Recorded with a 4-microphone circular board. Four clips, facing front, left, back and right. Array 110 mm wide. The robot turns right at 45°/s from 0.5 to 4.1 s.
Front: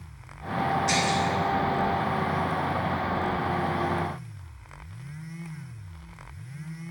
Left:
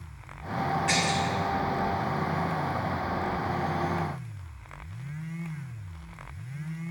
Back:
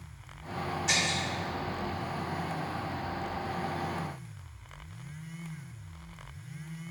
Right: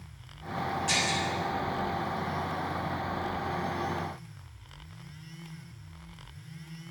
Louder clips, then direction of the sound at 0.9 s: Left 3 dB, front 7 dB; 120° left.